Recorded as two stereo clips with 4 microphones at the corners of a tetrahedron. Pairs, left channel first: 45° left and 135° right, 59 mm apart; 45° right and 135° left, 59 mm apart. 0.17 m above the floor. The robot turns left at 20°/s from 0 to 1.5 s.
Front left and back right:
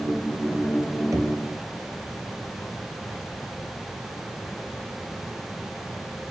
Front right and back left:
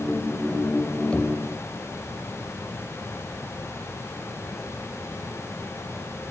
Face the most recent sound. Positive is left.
turn(degrees=-120)